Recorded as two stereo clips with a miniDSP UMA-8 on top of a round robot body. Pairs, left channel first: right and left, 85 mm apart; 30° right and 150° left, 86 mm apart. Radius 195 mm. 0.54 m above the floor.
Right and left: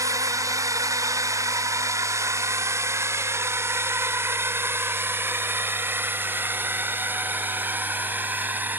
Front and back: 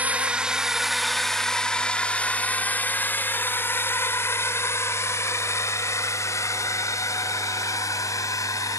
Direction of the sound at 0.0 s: 85° left.